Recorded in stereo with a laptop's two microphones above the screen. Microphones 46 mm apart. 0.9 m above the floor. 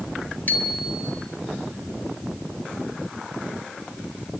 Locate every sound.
0.5 s a bicycle bell: 40° left (ahead or behind), 4.5 m